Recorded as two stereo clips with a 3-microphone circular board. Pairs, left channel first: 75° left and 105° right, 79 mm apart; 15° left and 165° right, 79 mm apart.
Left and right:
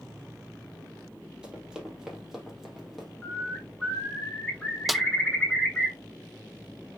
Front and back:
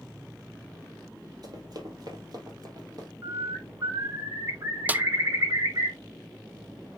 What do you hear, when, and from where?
1.4 s running footsteps: straight behind, 2.5 m; by 3.1 s 160° left, 3.5 m
3.2 s a bird: 150° left, 4 m
4.9 s a snare drum: 170° left, 0.5 m